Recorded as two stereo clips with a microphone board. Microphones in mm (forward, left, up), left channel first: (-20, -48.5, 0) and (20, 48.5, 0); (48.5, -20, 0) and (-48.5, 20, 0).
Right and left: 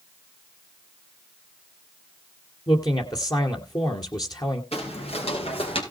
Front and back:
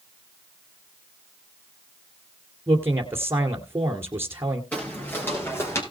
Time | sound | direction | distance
2.7 | a man speaking | 145° right | 1.9 m
4.7 | footsteps | 95° right | 5 m